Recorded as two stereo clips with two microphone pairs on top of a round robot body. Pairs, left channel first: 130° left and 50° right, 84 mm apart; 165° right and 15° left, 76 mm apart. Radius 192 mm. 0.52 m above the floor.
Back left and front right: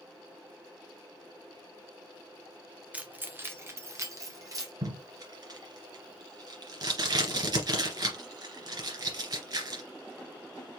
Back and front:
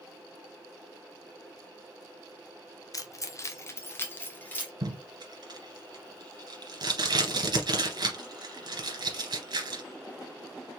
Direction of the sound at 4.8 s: 15° right.